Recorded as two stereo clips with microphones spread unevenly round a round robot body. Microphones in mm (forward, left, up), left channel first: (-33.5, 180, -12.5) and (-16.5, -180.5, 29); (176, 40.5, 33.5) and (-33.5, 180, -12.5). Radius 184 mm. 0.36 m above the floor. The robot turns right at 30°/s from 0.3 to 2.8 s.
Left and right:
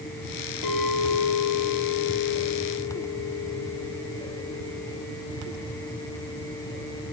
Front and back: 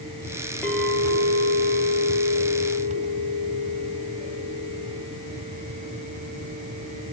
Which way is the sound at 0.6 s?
50° left.